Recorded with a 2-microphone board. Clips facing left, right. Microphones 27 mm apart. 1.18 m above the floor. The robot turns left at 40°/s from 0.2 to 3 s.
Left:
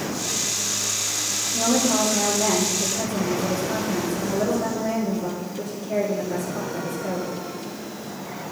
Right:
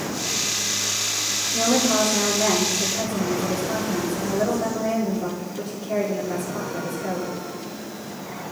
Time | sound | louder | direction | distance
1.5 | a woman speaking | right 1 dB | 75° right | 3 m